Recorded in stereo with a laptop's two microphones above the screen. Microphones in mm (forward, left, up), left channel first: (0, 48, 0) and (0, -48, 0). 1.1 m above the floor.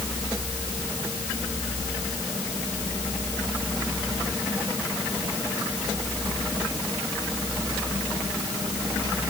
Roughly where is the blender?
I don't hear a blender.